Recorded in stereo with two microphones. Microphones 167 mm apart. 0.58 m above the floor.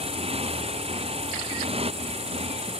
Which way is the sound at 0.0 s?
35° right (ahead or behind).